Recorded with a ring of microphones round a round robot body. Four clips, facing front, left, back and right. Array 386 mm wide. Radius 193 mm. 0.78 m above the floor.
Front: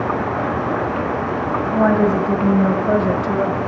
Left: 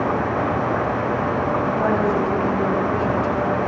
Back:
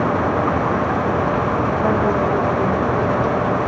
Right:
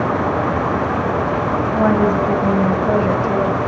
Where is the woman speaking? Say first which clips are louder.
Right 6 dB, front 6 dB; 30° right, 5 m; by 3.6 s 35° right, 3.5 m.